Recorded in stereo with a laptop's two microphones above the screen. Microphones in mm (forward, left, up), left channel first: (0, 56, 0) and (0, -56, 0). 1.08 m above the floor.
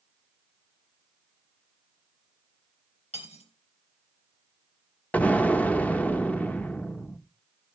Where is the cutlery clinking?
75° left (ahead or behind), 3 m.